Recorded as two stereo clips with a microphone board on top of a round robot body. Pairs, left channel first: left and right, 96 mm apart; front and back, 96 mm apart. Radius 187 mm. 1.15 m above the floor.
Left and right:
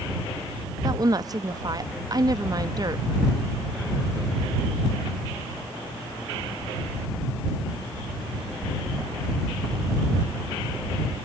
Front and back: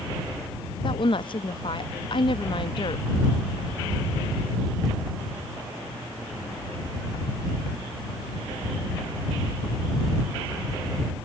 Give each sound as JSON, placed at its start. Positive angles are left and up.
{"t": 0.8, "sound": "a woman speaking", "azimuth_deg": -40}